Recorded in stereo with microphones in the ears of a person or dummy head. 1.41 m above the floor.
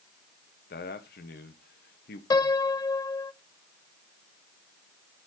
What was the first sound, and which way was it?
A man speaking, 50° left (ahead or behind).